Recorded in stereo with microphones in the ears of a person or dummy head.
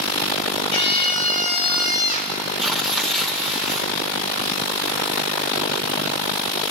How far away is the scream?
About 5 m.